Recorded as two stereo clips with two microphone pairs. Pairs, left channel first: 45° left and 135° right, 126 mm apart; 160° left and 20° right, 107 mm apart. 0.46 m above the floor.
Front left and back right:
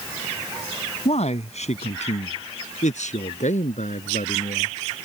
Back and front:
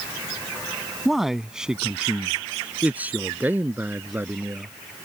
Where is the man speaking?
70° left; by 4.7 s 50° left.